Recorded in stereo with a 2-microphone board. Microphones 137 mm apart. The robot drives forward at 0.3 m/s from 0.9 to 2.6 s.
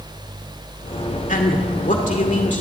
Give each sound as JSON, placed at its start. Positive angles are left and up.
{"t": 1.3, "sound": "a man speaking", "side_deg": 70, "distance_m": 2.0}